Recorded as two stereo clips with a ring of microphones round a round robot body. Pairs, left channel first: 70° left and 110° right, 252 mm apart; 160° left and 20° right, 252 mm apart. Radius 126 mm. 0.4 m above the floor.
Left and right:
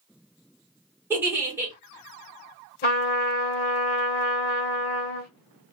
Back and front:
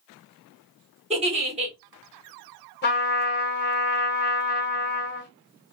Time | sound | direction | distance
1.1 | a giggle | 40° right | 1.4 m
2.8 | a trumpet | 115° left | 1.1 m